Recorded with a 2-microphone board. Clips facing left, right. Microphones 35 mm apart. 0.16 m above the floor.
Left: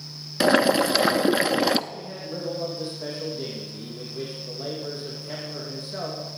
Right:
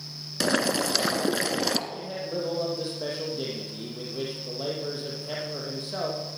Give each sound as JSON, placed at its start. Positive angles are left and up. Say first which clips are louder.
{"t": 0.4, "sound": "boiling", "louder": "left 6 dB", "side_deg": 20, "distance_m": 0.7}
{"t": 1.9, "sound": "a man speaking", "louder": "right 2 dB", "side_deg": -40, "distance_m": 5.0}